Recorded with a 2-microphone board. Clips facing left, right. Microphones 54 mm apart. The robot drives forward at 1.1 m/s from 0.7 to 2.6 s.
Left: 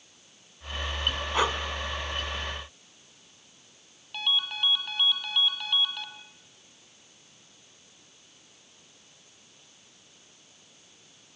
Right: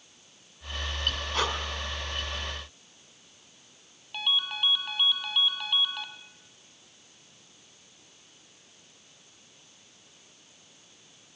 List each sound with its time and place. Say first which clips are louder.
1.3 s breathing: left 4 dB; 15° left (ahead or behind), 1.9 m; by 1.6 s 20° left (ahead or behind), 1.8 m
4.1 s a ringtone: even; 5° right (ahead or behind), 2.5 m